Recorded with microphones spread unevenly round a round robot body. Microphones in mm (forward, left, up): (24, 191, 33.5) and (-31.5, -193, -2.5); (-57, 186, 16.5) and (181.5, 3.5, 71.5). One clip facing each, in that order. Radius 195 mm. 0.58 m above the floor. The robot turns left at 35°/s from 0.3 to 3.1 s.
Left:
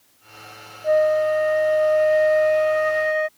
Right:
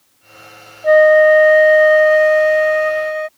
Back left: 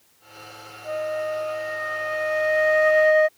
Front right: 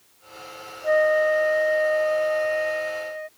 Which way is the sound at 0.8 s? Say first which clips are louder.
Right 9 dB, front right 8 dB; 105° right.